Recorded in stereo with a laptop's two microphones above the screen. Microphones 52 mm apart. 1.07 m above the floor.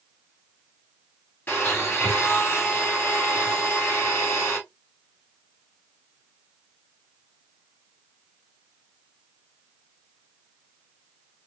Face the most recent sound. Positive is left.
turn(degrees=40)  # may be behind; listen again after turning